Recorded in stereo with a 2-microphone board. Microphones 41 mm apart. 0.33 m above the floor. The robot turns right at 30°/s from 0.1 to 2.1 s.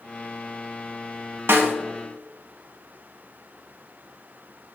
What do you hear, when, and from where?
1.5 s a snare drum: 75° right (ahead or behind), 0.7 m; by 1.7 s 65° right (ahead or behind), 0.7 m